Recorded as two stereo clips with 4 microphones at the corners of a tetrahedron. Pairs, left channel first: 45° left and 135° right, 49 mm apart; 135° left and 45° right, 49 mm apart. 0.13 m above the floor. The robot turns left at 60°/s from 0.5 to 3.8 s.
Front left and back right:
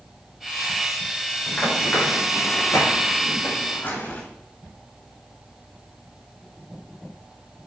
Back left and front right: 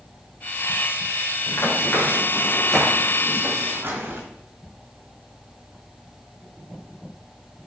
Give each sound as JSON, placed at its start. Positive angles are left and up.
{"t": 1.5, "sound": "running footsteps", "azimuth_deg": 120, "distance_m": 5.5}